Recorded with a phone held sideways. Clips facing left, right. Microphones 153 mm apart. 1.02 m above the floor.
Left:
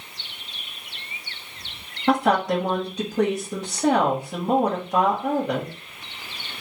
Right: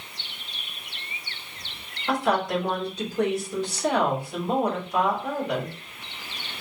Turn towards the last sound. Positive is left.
turn(degrees=70)  # may be behind; listen again after turning